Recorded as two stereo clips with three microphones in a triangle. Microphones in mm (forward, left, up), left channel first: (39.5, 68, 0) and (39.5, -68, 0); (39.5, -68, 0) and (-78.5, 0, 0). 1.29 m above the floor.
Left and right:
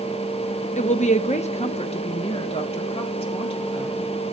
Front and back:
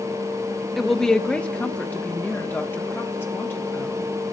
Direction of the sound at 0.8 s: 60° left.